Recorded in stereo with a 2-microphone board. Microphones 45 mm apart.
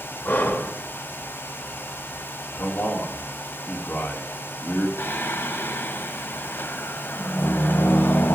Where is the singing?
60° left (ahead or behind), 1.2 m.